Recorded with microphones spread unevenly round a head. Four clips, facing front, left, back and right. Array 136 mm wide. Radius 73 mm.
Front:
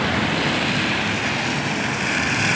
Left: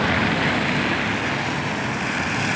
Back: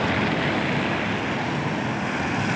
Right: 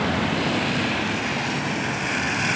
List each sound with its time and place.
Only background noise.